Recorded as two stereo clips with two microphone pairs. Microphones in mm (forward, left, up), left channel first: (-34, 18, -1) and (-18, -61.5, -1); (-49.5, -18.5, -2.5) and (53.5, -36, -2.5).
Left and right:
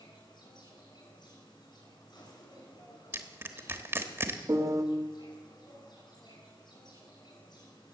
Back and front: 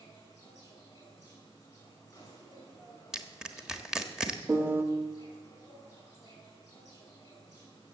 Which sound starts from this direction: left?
An insect, at 0.0 s.